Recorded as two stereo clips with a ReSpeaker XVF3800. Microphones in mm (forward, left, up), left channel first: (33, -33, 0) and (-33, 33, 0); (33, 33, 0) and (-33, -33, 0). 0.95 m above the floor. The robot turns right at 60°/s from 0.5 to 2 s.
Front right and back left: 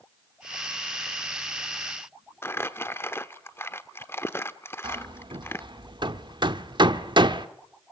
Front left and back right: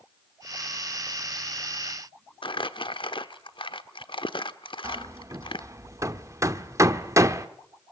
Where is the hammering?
170° left, 1.0 m.